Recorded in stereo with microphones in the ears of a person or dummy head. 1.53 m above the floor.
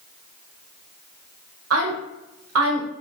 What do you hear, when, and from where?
1.7 s a woman speaking: 85° right, 1.0 m